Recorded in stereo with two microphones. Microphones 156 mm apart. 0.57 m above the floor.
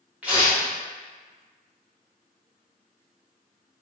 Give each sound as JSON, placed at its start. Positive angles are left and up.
{"t": 0.2, "sound": "tearing paper", "side_deg": -10, "distance_m": 1.4}